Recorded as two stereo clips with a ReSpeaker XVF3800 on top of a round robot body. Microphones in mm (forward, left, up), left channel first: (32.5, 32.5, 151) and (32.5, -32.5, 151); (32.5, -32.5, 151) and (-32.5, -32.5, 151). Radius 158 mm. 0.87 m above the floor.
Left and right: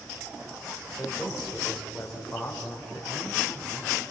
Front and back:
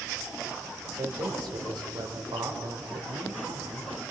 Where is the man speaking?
175° left, 5 m.